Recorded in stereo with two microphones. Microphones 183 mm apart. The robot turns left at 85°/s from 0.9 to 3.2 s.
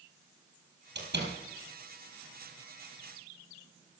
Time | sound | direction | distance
0.9 | a door slam | 70° right (ahead or behind) | 3 m